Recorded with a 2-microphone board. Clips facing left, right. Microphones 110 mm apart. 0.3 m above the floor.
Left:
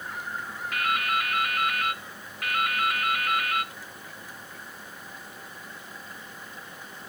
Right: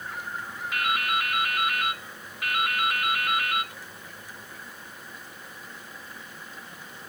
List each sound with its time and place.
0.7 s dripping: 5° right (ahead or behind), 2.0 m